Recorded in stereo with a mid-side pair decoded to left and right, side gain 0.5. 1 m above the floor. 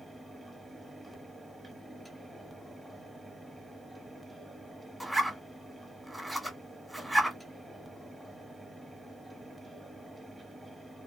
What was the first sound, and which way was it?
A fan, 5° right.